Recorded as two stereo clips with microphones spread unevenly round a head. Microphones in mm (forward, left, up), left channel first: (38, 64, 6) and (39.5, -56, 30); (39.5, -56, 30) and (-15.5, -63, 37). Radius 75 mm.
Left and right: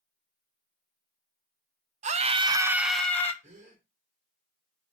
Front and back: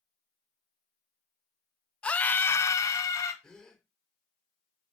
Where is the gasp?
70° right, 4 m.